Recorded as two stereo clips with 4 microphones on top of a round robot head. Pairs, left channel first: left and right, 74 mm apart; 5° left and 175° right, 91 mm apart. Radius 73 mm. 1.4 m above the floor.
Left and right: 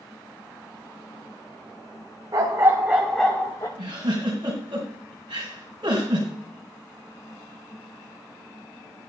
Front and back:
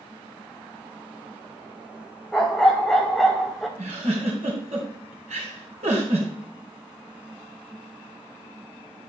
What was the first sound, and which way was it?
A dog barking, 80° right.